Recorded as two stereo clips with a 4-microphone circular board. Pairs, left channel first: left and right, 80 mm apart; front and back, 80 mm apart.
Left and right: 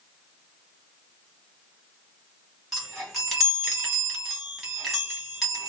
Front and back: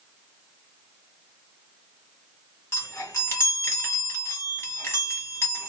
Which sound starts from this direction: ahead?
A chime, at 2.7 s.